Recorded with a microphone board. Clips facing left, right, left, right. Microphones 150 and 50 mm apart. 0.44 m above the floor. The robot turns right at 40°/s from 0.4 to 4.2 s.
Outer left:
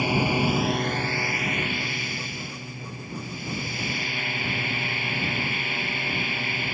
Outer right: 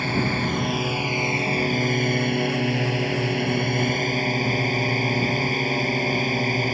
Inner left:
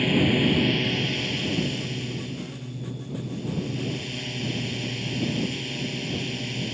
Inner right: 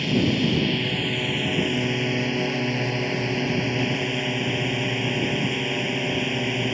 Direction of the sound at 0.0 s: 170° left.